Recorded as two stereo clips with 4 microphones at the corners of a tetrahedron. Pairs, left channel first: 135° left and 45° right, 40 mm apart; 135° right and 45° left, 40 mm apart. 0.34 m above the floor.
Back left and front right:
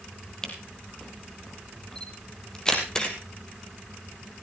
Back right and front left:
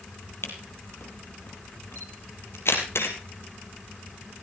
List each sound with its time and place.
0.4 s a camera shutter: 150° right, 3.5 m